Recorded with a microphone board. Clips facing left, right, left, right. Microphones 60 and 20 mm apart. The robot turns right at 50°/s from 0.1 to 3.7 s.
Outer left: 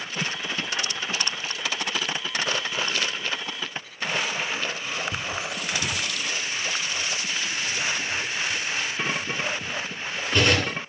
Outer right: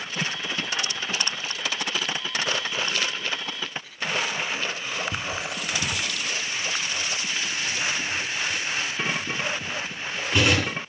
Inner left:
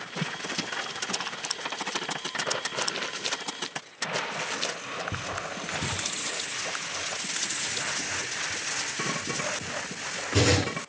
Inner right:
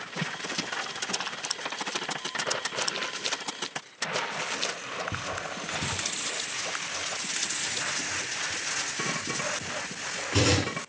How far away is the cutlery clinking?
About 9 m.